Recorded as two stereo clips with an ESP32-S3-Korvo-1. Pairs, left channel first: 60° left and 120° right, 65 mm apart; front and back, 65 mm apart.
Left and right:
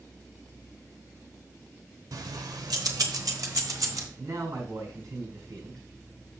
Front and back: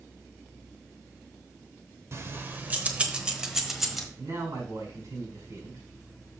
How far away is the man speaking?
About 5.5 m.